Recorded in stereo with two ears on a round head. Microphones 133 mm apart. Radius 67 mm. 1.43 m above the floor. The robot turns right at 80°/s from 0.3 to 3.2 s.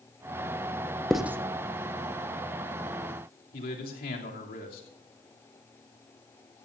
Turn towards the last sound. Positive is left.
turn(degrees=70)  # may be behind; listen again after turning